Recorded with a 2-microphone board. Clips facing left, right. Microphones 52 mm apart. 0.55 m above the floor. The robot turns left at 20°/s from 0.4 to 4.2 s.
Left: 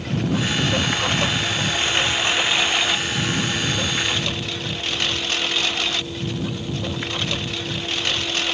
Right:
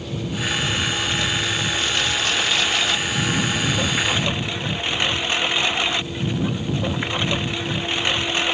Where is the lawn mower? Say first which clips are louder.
Left 4 dB; 60° left; by 8.6 s 15° right.